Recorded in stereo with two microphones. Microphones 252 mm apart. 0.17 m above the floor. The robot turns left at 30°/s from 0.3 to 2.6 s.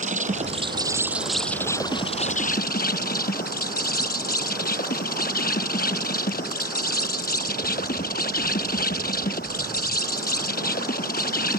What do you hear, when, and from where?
0.0 s an insect: 150° right; by 11.6 s 140° left